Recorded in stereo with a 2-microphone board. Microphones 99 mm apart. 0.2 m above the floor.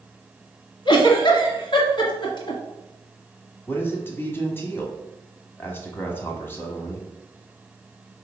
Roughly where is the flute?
I don't hear a flute.